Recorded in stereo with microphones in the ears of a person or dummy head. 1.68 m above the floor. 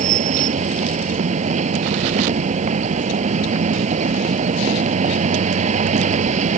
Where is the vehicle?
40° right (ahead or behind).